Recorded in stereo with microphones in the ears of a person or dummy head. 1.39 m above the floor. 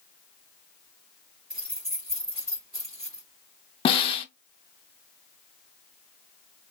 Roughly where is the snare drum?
Left.